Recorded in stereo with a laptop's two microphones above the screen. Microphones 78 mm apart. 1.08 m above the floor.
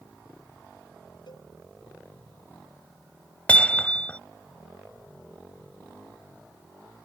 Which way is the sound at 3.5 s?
15° left (ahead or behind).